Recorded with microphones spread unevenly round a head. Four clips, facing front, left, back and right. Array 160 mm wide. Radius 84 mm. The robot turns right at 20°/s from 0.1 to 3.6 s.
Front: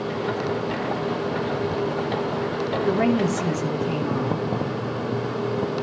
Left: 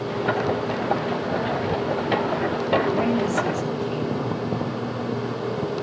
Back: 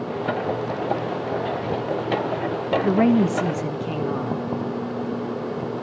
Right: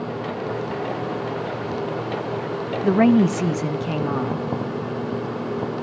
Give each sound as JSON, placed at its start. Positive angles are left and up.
{"t": 2.8, "sound": "a woman speaking", "azimuth_deg": -120, "distance_m": 1.2}